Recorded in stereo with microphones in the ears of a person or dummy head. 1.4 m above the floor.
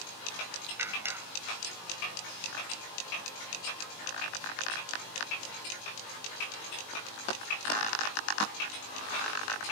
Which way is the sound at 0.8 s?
10° right (ahead or behind).